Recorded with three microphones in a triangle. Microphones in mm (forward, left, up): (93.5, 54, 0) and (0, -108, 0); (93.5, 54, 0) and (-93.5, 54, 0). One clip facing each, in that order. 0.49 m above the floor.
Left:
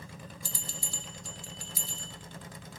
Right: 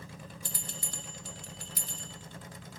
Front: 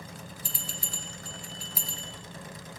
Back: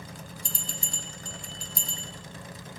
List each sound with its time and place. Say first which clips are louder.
0.5 s a bell: even, back 1 dB; 85° right, 1.9 m